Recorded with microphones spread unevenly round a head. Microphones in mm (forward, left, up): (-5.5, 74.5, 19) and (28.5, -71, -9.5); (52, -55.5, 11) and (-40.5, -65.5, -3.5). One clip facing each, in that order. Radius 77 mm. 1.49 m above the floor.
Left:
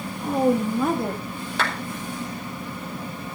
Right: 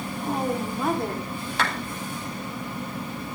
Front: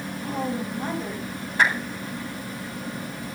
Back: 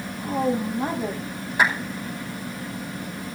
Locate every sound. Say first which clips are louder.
0.2 s a woman speaking: left 7 dB, back 5 dB; 105° left, 3 m; by 1.2 s 120° left, 3.5 m
1.6 s a clap: left 1 dB, back 1 dB; 105° left, 5.5 m